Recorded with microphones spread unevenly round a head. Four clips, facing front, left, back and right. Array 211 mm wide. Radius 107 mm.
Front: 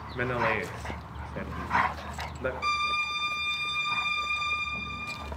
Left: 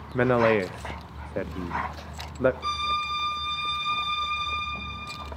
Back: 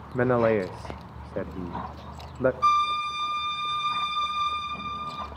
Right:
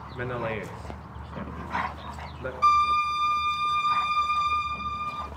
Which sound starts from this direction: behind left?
A man speaking, at 0.1 s.